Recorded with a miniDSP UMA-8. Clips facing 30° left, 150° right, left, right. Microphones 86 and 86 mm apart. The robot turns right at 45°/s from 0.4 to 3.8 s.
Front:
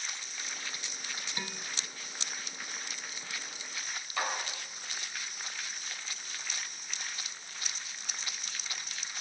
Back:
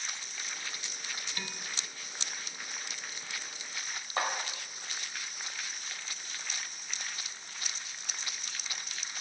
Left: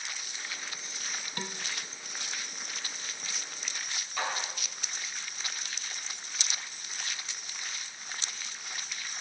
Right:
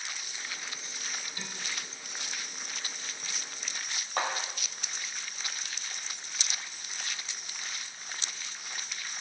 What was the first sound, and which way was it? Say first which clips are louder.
Dishes clattering: front 2 dB, left 4 dB; 95° left.